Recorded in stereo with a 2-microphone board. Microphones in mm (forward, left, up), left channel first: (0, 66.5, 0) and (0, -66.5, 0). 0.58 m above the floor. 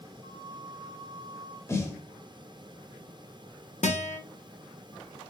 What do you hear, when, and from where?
0.2 s a flute: 25° left (ahead or behind), 1.8 m
1.7 s a snare drum: 20° left (ahead or behind), 0.9 m
3.8 s a guitar: 65° left (ahead or behind), 0.6 m